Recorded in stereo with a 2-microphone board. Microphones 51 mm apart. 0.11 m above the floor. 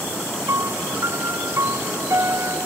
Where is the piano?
60° right (ahead or behind).